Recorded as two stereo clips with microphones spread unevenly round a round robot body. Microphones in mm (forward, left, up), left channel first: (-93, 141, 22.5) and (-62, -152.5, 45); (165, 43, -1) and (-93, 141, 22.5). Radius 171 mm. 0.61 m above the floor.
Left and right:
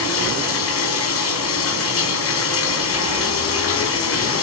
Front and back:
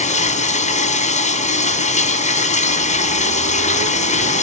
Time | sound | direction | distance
0.0 | running water | 45° left | 3.5 m